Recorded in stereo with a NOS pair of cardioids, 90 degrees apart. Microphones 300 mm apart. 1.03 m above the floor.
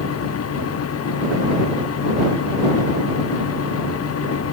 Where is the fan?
50° left.